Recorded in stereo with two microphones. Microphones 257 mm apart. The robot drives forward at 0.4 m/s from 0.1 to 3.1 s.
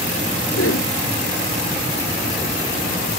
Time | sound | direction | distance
0.5 | a whoosh | 60° left (ahead or behind) | ?